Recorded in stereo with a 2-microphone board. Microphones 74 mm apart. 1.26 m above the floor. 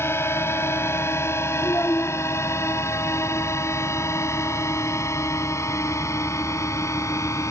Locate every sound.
0.0 s a drone: 35° left (ahead or behind); by 7.5 s 45° left (ahead or behind)
1.6 s a child speaking: 40° left (ahead or behind)